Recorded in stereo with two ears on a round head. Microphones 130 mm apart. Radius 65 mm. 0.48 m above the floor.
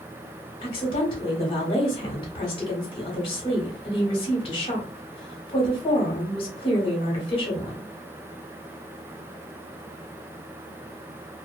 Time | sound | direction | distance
0.6 | a woman speaking | 35° left (ahead or behind) | 1.2 m